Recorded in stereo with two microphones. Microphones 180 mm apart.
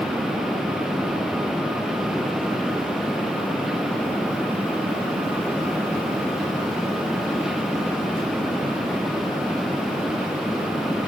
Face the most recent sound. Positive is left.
No sound to turn to.